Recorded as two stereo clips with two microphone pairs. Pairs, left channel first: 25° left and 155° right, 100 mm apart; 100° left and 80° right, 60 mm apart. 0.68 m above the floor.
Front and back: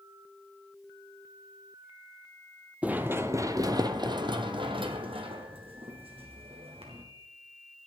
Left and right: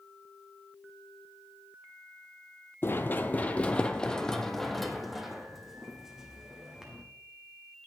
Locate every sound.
2.8 s running footsteps: 135° left, 0.9 m; by 7.0 s 160° right, 2.5 m